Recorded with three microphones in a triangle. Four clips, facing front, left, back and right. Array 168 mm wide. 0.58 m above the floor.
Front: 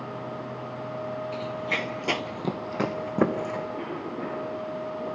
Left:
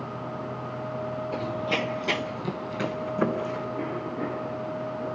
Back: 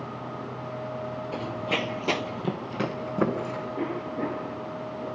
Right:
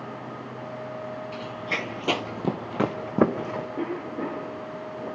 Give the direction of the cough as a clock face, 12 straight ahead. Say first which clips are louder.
Right 1 dB, back 3 dB; 4 o'clock.